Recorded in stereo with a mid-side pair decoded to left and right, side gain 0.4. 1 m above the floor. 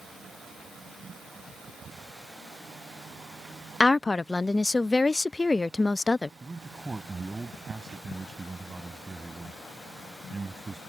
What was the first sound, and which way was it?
A woman speaking, 20° left.